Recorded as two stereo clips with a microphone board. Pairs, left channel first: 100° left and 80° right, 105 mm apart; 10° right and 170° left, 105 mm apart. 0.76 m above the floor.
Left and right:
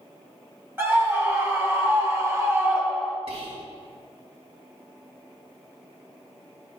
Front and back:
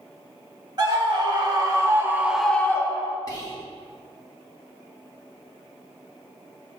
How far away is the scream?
About 2.5 m.